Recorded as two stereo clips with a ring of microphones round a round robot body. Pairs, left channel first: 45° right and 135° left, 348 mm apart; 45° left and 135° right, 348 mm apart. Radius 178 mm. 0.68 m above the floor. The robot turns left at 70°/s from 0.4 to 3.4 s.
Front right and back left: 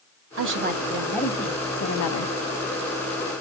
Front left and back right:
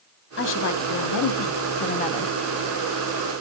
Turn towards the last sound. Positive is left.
turn(degrees=-115)